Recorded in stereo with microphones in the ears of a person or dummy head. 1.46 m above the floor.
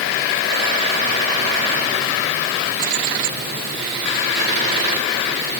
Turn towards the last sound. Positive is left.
No sound to turn to.